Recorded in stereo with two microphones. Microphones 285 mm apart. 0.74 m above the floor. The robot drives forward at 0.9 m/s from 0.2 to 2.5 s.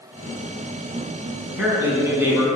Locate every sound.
1.5 s a man speaking: 10° right (ahead or behind), 6 m